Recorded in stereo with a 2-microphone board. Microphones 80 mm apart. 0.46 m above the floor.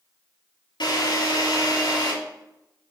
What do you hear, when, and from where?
0.8 s a drill: 75° left (ahead or behind), 3.5 m